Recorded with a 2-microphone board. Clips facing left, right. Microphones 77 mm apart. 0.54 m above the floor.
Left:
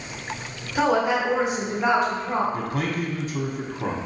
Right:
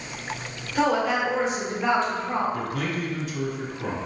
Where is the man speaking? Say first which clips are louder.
Left 2 dB; 30° left (ahead or behind), 0.8 m.